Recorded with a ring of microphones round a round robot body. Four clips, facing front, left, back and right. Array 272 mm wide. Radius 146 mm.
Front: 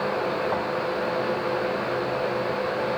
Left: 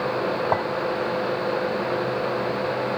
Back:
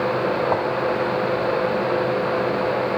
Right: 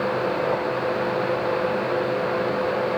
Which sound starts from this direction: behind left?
A clink, at 0.5 s.